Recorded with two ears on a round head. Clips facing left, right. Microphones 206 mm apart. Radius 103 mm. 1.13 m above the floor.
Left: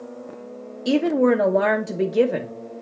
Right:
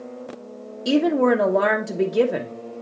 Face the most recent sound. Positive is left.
turn(degrees=0)  # may be behind; listen again after turning